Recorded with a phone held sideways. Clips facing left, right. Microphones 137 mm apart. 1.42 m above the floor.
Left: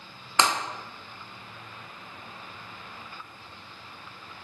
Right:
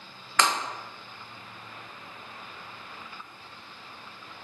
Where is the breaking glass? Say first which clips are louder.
Left 1 dB; 20° left (ahead or behind), 0.5 m.